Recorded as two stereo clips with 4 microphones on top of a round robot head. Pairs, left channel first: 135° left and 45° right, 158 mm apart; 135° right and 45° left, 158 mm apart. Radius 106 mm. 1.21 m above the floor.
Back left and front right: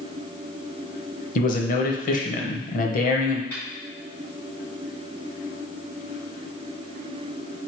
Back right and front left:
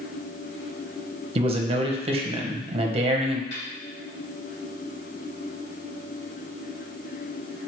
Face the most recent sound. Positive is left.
turn(degrees=-145)